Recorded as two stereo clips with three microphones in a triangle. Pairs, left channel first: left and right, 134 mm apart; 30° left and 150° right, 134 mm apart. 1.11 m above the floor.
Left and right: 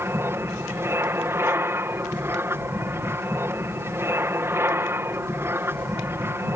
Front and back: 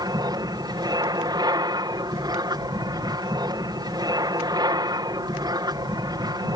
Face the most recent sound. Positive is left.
turn(degrees=-145)